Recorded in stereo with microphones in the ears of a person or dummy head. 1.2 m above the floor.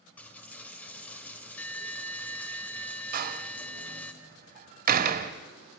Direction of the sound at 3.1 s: 40° right (ahead or behind).